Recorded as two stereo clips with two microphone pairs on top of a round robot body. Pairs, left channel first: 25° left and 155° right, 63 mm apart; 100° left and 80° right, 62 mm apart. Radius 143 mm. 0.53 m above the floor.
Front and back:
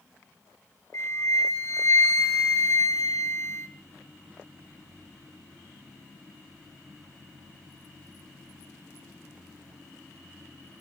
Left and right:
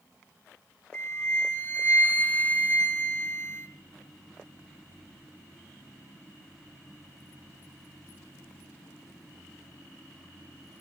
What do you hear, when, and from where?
0.9 s a flute: 45° left, 1.4 m